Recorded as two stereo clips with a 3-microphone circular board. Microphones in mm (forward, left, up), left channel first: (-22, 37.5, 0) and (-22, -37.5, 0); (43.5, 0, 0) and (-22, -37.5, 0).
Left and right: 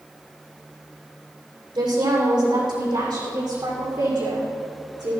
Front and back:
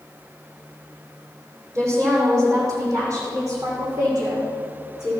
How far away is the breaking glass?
I don't hear breaking glass.